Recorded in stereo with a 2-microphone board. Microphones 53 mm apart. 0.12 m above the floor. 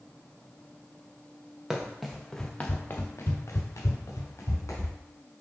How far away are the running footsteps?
About 1.1 m.